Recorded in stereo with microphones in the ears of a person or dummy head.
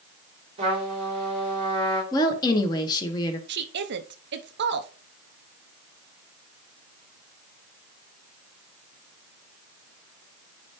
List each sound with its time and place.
0.6 s a trumpet: 35° right (ahead or behind), 3.5 m
2.1 s a woman speaking: 20° left (ahead or behind), 1.5 m
3.5 s a woman speaking: 60° right (ahead or behind), 0.8 m